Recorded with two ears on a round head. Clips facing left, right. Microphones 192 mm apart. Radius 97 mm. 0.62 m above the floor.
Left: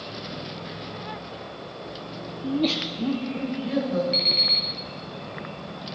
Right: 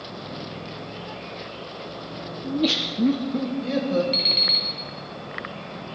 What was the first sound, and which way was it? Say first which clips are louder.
Laughter: even; 20° left (ahead or behind).